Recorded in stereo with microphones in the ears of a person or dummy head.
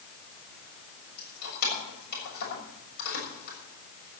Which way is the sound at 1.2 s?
55° left (ahead or behind).